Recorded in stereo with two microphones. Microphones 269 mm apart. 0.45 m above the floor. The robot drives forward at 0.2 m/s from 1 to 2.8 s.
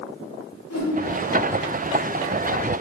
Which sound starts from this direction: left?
A whoosh, at 0.7 s.